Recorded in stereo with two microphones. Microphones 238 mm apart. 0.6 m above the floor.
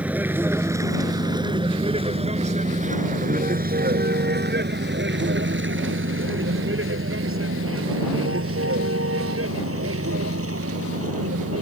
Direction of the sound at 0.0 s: 5° right (ahead or behind).